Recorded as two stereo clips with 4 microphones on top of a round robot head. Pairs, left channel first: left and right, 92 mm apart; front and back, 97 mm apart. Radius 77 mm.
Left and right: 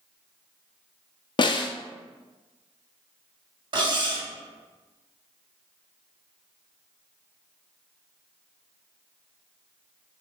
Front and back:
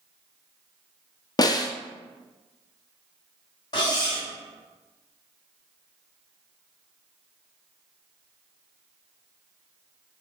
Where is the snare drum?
50° left, 0.5 m.